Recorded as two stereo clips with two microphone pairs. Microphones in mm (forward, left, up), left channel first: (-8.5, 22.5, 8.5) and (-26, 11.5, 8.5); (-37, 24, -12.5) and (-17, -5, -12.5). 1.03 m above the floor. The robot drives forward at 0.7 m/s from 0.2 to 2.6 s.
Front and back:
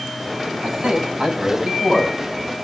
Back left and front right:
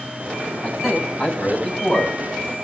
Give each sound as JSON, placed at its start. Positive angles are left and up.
{"t": 0.6, "sound": "a man speaking", "azimuth_deg": -155, "distance_m": 9.5}